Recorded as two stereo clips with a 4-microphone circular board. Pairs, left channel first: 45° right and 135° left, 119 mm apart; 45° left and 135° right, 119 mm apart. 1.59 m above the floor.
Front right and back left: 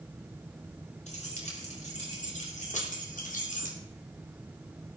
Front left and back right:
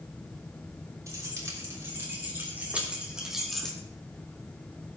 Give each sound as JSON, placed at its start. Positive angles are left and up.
{"t": 1.1, "sound": "keys jangling", "azimuth_deg": -70, "distance_m": 5.0}